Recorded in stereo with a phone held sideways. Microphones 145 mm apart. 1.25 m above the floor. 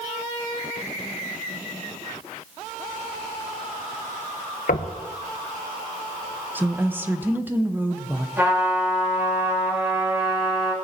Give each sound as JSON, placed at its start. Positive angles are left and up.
{"t": 4.7, "sound": "knocking", "side_deg": 75, "distance_m": 0.8}
{"t": 6.5, "sound": "a woman speaking", "side_deg": -15, "distance_m": 0.9}
{"t": 8.4, "sound": "a trumpet", "side_deg": -15, "distance_m": 2.5}